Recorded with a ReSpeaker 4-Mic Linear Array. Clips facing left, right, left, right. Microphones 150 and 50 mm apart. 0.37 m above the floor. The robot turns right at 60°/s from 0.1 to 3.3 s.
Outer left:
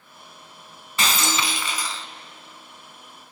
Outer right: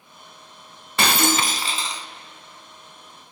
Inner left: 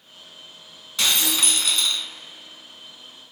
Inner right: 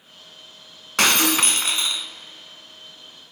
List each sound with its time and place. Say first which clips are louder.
1.0 s breaking glass: outer right 4 dB, inner right 5 dB; 80° right, 0.5 m; by 2.1 s 10° right, 0.5 m